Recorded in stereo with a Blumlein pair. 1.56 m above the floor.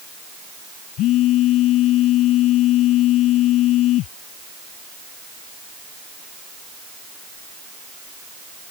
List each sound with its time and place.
1.0 s a phone buzzing: 35° left